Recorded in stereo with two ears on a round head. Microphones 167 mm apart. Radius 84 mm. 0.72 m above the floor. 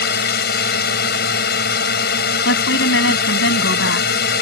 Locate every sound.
0.0 s a drone: 60° left (ahead or behind)
2.5 s a woman speaking: 65° left (ahead or behind)